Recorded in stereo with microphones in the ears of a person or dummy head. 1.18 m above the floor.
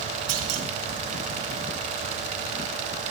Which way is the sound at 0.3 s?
85° right.